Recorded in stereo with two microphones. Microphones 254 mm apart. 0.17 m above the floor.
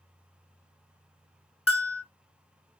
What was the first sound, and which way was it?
A bell, 60° left (ahead or behind).